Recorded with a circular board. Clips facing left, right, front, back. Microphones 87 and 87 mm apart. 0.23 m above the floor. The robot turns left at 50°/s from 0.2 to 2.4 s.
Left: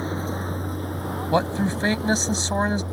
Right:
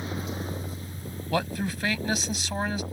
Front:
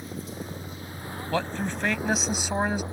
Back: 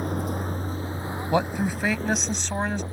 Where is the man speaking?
130° left; by 2.8 s 75° left.